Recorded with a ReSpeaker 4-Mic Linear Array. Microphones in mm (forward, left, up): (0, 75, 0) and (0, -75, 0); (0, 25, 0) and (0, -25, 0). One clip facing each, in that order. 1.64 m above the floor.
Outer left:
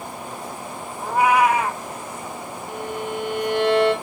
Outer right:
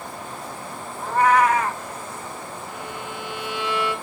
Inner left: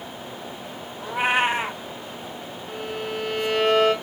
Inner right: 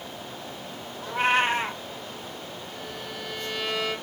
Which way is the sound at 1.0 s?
10° left (ahead or behind).